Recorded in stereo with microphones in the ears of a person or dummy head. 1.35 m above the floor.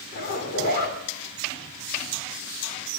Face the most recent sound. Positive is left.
turn(degrees=45)  # may be behind; listen again after turning